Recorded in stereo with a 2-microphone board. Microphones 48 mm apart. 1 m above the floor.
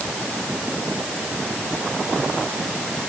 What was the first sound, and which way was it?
Only background noise.